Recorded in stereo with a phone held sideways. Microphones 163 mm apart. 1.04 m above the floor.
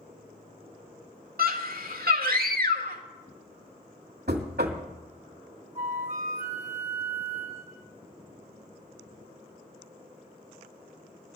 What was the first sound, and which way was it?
A scream, 65° right (ahead or behind).